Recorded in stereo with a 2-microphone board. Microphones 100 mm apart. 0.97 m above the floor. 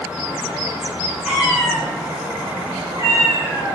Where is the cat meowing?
10° right (ahead or behind), 0.8 m; by 3.8 s 55° right (ahead or behind), 1.7 m.